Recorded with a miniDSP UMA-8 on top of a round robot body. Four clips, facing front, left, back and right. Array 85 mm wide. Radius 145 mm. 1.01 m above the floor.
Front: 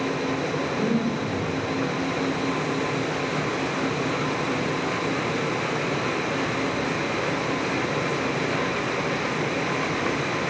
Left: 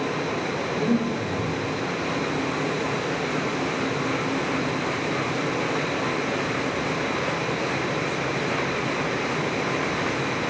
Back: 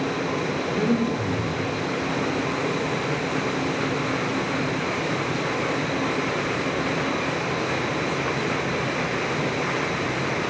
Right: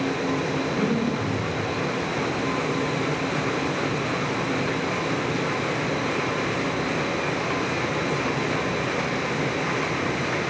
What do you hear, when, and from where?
0.7 s breathing: 170° left, 1.3 m